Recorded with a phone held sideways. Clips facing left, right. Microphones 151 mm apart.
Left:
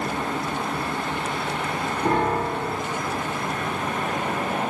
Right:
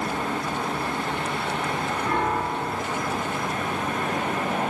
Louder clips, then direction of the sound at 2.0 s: Left 5 dB; 45° left (ahead or behind).